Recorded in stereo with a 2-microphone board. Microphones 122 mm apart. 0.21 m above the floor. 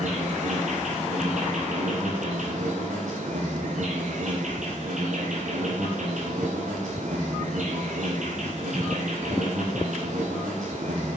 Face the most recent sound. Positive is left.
turn(degrees=-70)  # may be behind; listen again after turning